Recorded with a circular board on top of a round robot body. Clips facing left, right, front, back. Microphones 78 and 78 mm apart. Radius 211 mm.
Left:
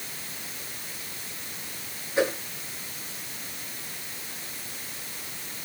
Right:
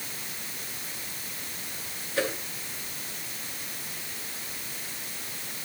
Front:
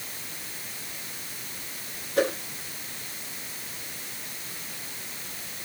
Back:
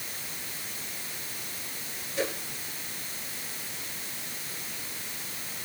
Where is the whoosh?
20° left, 7.5 m.